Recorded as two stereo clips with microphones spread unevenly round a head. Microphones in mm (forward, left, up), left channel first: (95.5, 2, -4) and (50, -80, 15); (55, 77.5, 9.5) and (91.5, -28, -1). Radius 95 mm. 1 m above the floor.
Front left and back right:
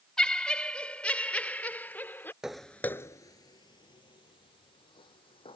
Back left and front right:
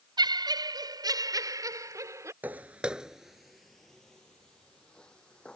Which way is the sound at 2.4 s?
130° right.